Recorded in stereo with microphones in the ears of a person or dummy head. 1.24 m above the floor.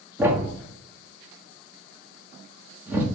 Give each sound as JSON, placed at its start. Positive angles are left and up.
{"t": 0.2, "sound": "a thud", "side_deg": -15, "distance_m": 1.0}